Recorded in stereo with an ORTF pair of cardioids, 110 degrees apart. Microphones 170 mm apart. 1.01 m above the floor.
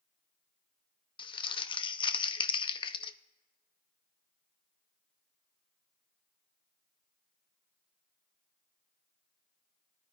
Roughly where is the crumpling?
Ahead left.